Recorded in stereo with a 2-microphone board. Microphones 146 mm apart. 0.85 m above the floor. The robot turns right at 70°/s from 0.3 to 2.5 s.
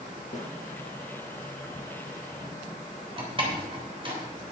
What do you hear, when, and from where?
0.3 s a snare drum: 55° left (ahead or behind), 5.5 m; by 0.5 s 70° left (ahead or behind), 5.5 m
3.2 s a door slam: 35° right (ahead or behind), 3 m